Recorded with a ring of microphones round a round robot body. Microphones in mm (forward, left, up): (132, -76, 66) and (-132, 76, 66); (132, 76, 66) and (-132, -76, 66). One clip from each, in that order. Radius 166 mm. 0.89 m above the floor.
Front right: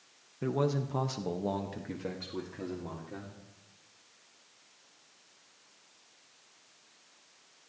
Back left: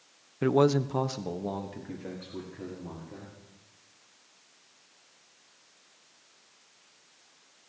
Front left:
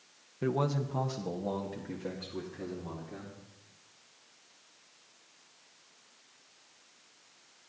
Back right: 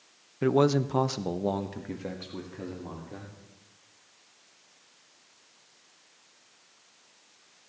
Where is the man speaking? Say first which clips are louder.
Back left 8 dB, back right 8 dB; 160° left, 0.8 m; by 3.4 s 85° right, 3 m.